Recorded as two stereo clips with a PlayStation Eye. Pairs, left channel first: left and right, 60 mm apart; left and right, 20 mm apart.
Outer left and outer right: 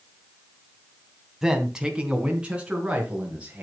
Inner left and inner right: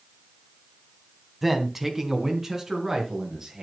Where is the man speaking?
10° right (ahead or behind), 2.5 m; by 3.6 s 20° right (ahead or behind), 6 m.